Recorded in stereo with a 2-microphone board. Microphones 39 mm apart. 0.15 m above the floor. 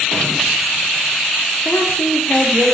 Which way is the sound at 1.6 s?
50° left (ahead or behind).